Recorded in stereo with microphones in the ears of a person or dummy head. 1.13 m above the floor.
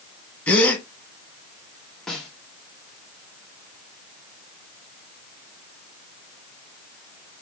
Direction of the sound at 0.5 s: 5° left (ahead or behind).